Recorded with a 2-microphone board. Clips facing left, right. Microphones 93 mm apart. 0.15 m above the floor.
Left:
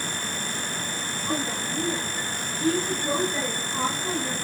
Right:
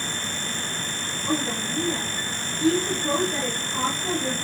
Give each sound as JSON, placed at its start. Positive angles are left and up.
{"t": 1.3, "sound": "a woman speaking", "side_deg": -10, "distance_m": 9.0}